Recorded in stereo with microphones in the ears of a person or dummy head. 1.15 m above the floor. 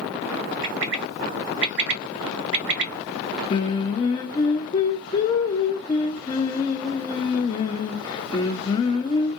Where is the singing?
30° left (ahead or behind), 0.7 m.